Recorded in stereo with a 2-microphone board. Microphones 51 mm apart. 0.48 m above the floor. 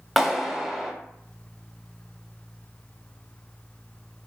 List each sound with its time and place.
0.2 s a clap: 5° right (ahead or behind), 0.8 m